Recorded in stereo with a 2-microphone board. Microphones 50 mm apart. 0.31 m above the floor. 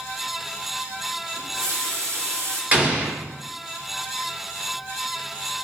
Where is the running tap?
70° right (ahead or behind), 2.5 m.